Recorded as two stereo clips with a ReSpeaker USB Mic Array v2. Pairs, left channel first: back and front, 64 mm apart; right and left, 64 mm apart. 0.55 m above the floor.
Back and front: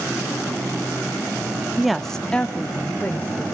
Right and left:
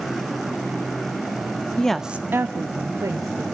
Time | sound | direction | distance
1.8 | a woman speaking | 65° right | 0.6 m